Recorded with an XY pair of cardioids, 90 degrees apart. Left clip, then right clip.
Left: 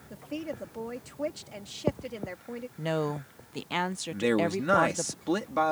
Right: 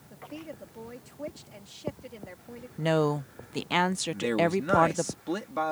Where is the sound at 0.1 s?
45° left.